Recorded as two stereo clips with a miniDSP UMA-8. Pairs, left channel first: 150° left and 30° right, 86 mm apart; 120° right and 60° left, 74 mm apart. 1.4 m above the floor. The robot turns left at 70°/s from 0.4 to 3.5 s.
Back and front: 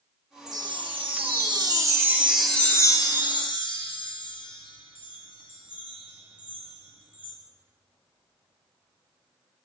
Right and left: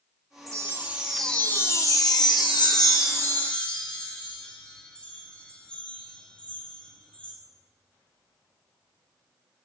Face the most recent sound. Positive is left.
turn(degrees=165)